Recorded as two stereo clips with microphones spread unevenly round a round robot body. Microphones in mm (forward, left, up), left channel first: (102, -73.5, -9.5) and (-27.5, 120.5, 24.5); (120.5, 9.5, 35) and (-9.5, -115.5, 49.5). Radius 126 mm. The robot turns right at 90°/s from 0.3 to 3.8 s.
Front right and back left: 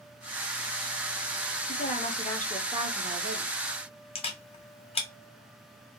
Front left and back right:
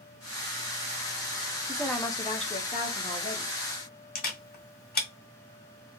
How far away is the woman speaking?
About 0.9 m.